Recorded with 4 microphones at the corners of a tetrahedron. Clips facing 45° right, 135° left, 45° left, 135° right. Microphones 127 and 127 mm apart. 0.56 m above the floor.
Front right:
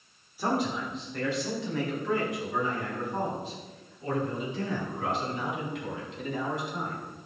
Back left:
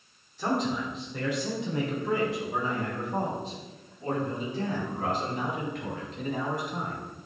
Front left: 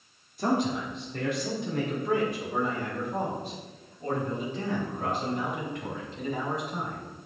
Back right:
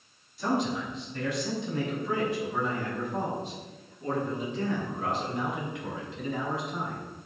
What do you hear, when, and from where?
0.4 s a man speaking: 30° left, 1.5 m; by 7.0 s 95° left, 5.5 m